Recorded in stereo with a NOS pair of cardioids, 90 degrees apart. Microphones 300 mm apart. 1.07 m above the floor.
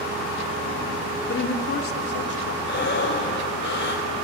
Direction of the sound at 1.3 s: 40° left.